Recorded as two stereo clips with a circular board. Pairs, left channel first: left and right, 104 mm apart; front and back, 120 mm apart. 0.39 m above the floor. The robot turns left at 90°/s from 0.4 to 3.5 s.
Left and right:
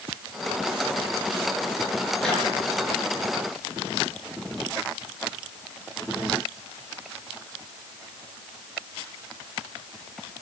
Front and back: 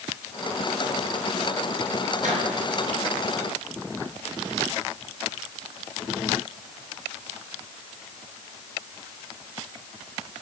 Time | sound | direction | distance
2.2 | a microwave | straight behind | 5.5 m